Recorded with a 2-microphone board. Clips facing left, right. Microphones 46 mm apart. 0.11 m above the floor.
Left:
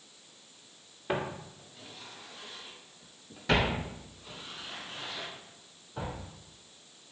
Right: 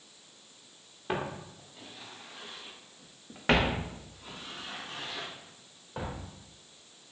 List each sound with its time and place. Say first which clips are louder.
1.1 s footsteps: left 1 dB; 5° left (ahead or behind), 1.4 m; by 6.2 s 75° right (ahead or behind), 3 m